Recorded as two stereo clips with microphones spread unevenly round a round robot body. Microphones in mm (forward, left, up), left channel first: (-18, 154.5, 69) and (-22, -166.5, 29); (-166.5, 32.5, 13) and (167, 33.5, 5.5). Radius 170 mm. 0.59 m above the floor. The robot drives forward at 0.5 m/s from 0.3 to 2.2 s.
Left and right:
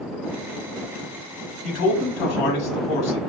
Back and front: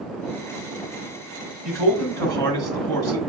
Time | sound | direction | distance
1.6 | a man speaking | 85° left | 1.2 m